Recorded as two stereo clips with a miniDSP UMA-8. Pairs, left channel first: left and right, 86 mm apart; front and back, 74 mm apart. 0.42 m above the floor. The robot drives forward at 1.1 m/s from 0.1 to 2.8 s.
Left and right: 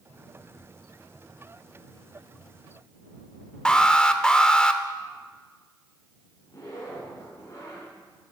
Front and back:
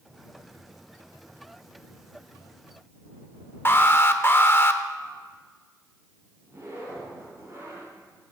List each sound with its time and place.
3.6 s an alarm: 20° left, 0.6 m
6.5 s a zipper: 135° left, 5 m